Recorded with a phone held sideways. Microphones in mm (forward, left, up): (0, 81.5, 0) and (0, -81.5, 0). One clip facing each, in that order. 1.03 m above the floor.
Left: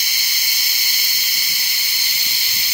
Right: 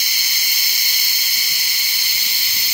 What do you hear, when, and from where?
Only background noise.